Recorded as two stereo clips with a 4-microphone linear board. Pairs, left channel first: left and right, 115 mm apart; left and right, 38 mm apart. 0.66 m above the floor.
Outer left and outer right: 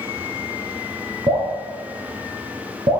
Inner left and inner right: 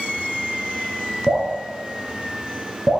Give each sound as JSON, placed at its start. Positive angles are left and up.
{"t": 1.3, "sound": "dripping", "side_deg": -65, "distance_m": 5.5}